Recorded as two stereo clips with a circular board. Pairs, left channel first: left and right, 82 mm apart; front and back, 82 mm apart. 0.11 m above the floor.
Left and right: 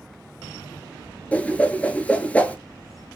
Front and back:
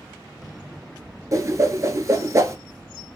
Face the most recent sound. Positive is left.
turn(degrees=155)